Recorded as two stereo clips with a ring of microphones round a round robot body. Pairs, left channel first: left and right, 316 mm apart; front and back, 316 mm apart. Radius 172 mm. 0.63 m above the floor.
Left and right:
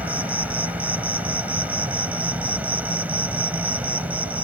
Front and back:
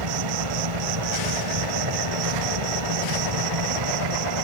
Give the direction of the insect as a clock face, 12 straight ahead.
6 o'clock.